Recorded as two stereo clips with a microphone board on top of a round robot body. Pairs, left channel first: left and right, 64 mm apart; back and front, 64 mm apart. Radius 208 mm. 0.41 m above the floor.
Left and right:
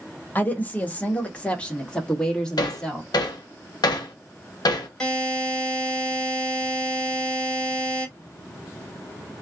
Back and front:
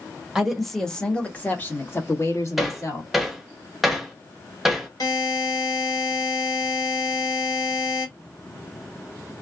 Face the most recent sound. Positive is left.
turn(degrees=170)